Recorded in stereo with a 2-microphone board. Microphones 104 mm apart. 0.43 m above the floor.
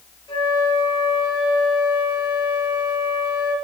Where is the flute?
55° left (ahead or behind), 3.5 m.